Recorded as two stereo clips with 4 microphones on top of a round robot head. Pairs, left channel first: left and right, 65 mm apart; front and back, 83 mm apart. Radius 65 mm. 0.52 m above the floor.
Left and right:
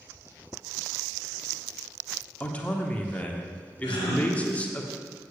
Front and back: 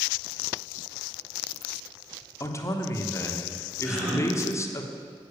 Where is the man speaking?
30° left, 1.3 m.